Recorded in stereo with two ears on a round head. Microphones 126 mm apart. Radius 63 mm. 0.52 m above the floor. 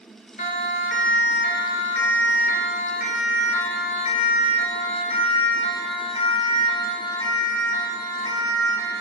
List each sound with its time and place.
0.4 s a siren: 50° left (ahead or behind), 2.5 m; by 9.0 s 25° left (ahead or behind), 5.5 m